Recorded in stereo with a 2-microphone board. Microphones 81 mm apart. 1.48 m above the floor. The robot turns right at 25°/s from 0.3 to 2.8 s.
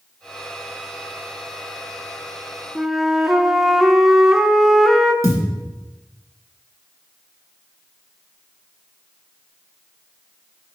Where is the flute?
Centre (ahead or behind), 0.6 m; by 5.1 s 5° right (ahead or behind), 0.6 m.